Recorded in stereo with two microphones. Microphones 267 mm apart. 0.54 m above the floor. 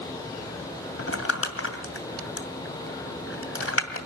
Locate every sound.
1.0 s crumpling: 55° left (ahead or behind), 2.5 m